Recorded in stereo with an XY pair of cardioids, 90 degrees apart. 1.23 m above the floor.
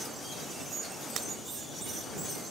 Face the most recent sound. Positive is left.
turn(degrees=-65)